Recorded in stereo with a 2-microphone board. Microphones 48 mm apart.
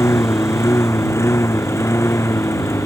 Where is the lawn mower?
65° left (ahead or behind); by 2.9 s 70° left (ahead or behind).